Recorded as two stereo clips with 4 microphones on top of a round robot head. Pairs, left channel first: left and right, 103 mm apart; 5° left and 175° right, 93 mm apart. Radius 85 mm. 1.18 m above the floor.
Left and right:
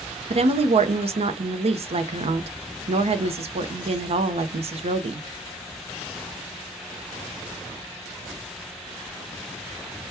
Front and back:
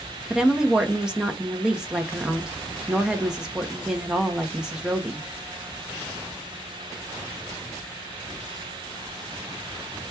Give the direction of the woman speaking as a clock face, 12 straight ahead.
3 o'clock.